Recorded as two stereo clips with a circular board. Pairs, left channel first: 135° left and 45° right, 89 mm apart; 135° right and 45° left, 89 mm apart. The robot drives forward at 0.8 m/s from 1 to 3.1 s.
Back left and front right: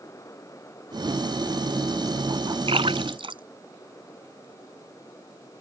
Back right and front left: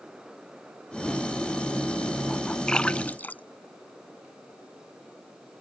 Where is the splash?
55° right; by 4.5 s 65° right.